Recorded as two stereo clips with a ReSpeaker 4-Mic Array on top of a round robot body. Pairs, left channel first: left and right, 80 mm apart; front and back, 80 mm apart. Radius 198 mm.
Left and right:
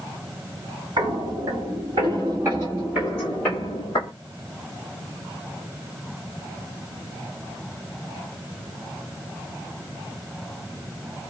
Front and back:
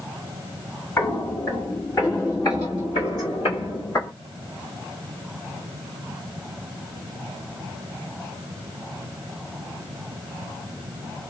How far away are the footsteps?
About 1.4 m.